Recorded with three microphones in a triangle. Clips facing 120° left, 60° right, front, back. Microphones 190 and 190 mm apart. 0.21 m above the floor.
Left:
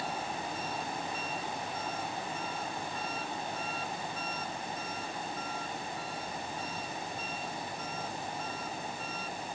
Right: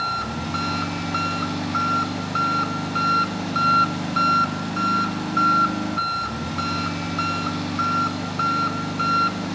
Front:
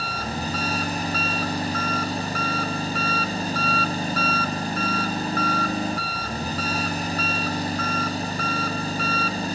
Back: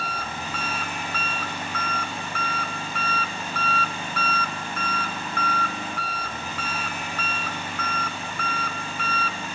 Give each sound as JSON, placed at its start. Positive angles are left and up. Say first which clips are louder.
{"t": 0.0, "sound": "an engine running", "louder": "right 7 dB, front 4 dB", "azimuth_deg": -55}